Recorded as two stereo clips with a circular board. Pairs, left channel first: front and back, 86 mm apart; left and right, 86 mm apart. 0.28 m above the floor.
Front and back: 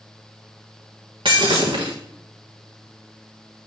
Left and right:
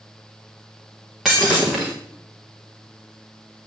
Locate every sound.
1.2 s breaking glass: 175° right, 3.5 m